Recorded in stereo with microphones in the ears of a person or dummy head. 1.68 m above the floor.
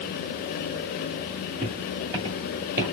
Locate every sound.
1.6 s footsteps: 30° right (ahead or behind), 1.9 m; by 2.9 s 10° right (ahead or behind), 1.7 m